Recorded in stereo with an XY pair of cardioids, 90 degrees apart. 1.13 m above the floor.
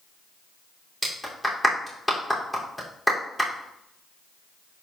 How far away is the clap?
About 3 m.